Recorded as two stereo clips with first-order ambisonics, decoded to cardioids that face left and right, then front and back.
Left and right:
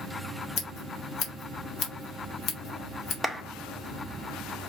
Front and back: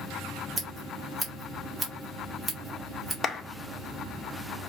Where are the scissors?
100° left, 1.5 m.